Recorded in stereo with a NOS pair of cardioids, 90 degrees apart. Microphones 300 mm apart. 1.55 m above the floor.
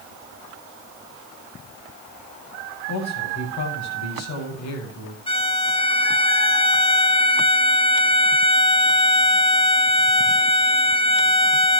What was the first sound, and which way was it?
A man speaking, 65° left.